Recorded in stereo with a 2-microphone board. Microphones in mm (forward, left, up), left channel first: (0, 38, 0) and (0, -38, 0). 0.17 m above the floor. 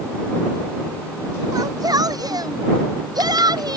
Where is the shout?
60° right (ahead or behind); by 3.8 s 70° right (ahead or behind).